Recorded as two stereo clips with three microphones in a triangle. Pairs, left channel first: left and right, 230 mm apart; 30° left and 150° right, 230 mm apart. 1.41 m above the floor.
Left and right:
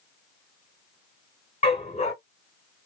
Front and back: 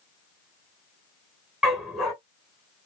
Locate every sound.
1.6 s a dog barking: 120° left, 1.3 m